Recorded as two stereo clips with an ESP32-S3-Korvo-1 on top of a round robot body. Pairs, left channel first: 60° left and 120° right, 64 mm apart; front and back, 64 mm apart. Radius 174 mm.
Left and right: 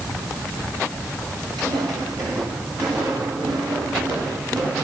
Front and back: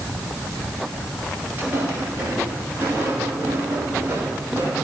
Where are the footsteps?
115° right, 10 m.